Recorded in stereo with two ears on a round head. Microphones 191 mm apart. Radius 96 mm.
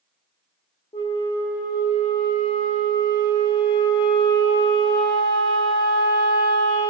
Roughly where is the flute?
Left.